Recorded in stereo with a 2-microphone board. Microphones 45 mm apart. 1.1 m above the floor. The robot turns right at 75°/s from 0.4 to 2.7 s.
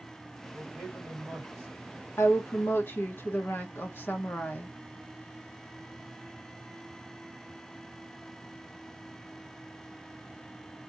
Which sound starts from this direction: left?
A woman speaking, at 2.2 s.